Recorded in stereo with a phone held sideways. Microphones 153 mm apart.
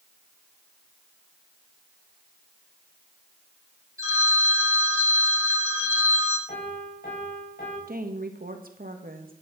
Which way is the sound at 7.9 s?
70° right (ahead or behind).